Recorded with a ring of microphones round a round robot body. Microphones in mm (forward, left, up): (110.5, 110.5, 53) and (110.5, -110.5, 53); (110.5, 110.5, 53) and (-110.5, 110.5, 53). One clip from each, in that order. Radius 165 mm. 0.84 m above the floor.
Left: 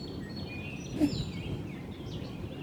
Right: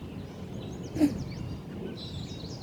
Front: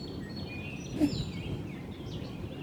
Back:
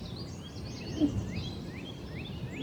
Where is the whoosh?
45° right.